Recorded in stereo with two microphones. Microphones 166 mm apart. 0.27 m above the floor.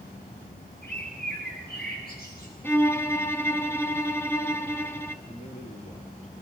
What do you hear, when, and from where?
0.8 s a bird: 70° left (ahead or behind), 7.5 m
2.6 s a violin: 15° left (ahead or behind), 1.2 m
5.2 s a man speaking: 40° left (ahead or behind), 6 m